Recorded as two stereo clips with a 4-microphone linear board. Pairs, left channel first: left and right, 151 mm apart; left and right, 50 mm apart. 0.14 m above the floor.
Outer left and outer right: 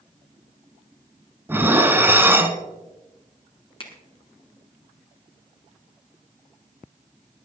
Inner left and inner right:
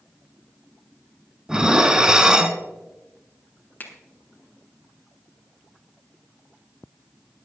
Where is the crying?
No crying in this recording.